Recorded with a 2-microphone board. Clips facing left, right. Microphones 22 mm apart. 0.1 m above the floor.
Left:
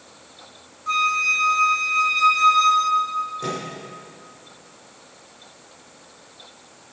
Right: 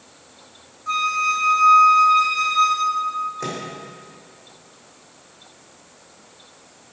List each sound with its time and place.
0.9 s a flute: centre (ahead or behind), 0.8 m
3.4 s a microwave: 30° right (ahead or behind), 4.5 m